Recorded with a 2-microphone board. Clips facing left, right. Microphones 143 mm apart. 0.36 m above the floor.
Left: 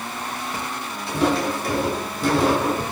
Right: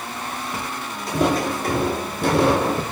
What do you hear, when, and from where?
1.1 s footsteps: 45° right (ahead or behind), 1.3 m; by 2.8 s 75° right (ahead or behind), 1.0 m